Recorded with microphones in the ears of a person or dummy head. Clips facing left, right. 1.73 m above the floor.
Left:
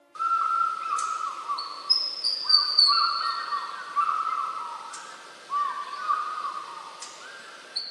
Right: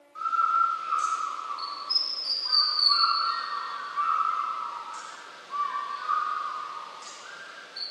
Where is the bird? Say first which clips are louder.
Even; 65° left (ahead or behind), 1.3 m.